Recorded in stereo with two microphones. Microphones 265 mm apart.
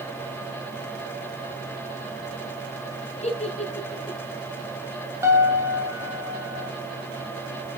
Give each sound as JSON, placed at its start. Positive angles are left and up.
{"t": 3.2, "sound": "a giggle", "side_deg": 25, "distance_m": 2.0}
{"t": 5.2, "sound": "a piano", "side_deg": -10, "distance_m": 1.7}